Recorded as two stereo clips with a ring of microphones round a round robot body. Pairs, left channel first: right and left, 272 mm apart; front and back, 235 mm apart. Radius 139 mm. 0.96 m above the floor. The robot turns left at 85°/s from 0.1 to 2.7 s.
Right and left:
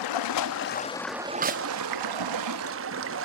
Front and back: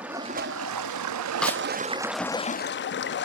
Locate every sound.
0.0 s running water: 95° right, 0.8 m; by 3.2 s 45° left, 0.8 m
1.4 s a snare drum: 85° left, 0.6 m; by 1.6 s 65° left, 0.6 m